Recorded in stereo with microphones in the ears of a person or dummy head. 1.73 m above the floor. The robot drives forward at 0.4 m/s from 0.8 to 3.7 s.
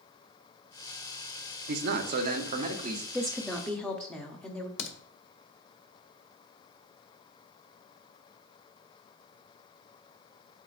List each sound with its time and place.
1.7 s a man speaking: 60° right (ahead or behind), 0.8 m; by 3.0 s 35° right (ahead or behind), 1.1 m
3.1 s a woman speaking: 5° left (ahead or behind), 0.6 m
4.8 s a crack: 70° left (ahead or behind), 1.3 m